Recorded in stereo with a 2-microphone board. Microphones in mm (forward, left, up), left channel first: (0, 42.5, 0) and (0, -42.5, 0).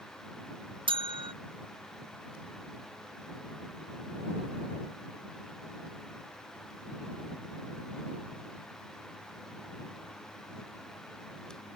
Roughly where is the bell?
Right.